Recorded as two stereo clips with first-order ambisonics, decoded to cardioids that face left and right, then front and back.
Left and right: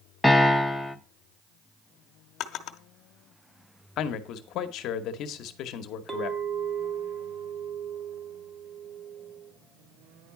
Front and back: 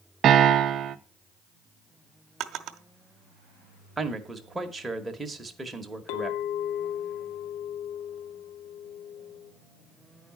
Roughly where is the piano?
Behind.